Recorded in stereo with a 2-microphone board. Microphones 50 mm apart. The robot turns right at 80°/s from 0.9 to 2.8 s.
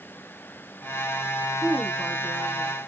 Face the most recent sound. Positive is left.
turn(degrees=-55)